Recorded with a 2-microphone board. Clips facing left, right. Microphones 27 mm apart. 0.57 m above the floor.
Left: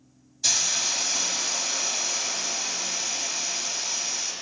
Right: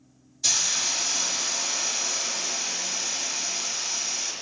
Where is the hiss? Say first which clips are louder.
Even; 5° left (ahead or behind), 1.8 m.